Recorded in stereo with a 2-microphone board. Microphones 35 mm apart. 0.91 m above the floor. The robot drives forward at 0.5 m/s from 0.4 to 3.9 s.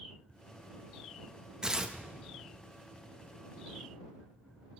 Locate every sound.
1.6 s tearing paper: 20° right (ahead or behind), 1.0 m; by 2.0 s 15° right (ahead or behind), 1.2 m